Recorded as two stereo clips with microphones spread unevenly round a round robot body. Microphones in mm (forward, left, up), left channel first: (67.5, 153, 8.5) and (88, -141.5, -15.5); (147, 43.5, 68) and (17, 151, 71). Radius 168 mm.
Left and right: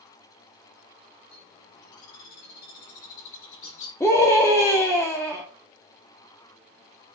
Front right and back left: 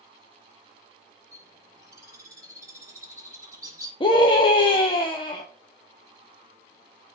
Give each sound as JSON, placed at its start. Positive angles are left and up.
{"t": 1.3, "sound": "a bird", "azimuth_deg": 70, "distance_m": 5.0}
{"t": 4.0, "sound": "a scream", "azimuth_deg": 10, "distance_m": 1.7}